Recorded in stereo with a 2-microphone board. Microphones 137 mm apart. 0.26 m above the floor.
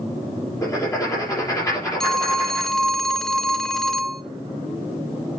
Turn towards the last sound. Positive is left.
turn(degrees=5)  # may be behind; listen again after turning